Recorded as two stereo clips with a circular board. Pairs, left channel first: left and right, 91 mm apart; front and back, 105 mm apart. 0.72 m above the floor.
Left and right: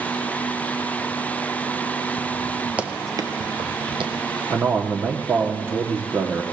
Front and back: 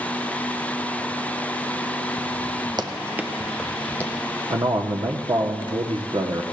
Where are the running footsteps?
160° right, 0.9 m; by 4.4 s 70° right, 2.5 m.